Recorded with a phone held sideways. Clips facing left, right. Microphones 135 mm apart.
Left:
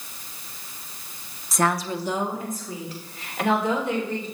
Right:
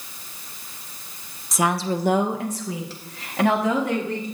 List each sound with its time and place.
1.5 s a woman speaking: centre (ahead or behind), 0.7 m; by 4.2 s 85° right, 3.5 m